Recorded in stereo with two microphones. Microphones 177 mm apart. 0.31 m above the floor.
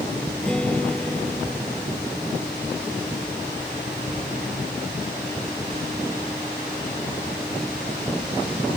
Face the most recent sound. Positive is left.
turn(degrees=5)  # may be behind; listen again after turning